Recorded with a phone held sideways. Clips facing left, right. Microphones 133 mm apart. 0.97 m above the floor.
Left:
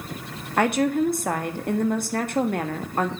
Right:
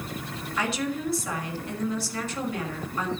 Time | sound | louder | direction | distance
0.6 | a woman speaking | left 9 dB | 55° left (ahead or behind) | 1.6 m